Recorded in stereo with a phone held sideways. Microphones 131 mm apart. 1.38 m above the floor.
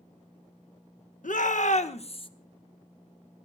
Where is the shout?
75° left (ahead or behind), 1.3 m; by 2.3 s 40° left (ahead or behind), 1.1 m.